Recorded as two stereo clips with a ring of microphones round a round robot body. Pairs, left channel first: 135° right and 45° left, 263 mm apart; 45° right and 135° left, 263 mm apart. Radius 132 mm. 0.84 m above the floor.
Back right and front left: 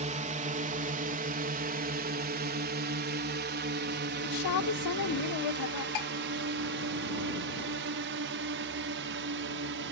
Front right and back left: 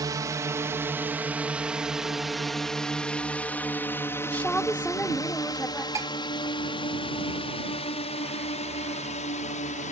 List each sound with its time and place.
0.0 s a drone: 75° left; by 9.9 s 10° left
4.2 s a woman speaking: 130° right
6.0 s dishes clattering: 145° right